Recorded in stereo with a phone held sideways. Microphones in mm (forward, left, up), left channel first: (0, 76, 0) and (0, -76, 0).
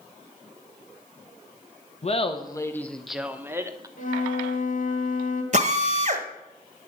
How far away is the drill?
About 1.2 m.